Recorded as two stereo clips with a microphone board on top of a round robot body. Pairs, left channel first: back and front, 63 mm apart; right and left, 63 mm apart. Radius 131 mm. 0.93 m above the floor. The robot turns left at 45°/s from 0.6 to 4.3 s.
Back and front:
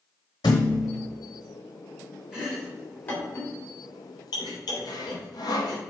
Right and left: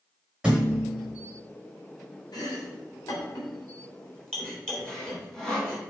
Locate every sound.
0.4 s a thud: 170° left, 0.8 m; by 1.0 s 150° left, 0.8 m
2.3 s chopping: 80° right, 2.5 m; by 5.8 s 170° right, 2.5 m
4.9 s sawing: 170° right, 1.7 m